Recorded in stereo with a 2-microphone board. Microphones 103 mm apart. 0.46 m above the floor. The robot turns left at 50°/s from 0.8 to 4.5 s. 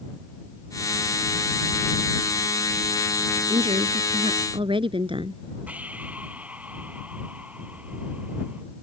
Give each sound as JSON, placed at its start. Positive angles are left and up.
{"t": 3.5, "sound": "a woman speaking", "azimuth_deg": -70}
{"t": 5.7, "sound": "breathing", "side_deg": -15}